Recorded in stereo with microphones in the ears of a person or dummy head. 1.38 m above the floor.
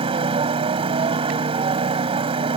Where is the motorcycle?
30° right (ahead or behind).